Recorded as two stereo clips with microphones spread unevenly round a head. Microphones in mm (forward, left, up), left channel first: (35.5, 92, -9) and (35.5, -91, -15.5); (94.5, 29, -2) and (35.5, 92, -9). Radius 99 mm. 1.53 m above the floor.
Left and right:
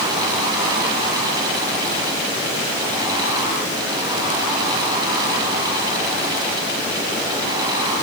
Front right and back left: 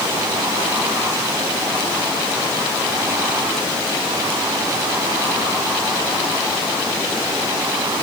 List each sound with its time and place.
Only background noise.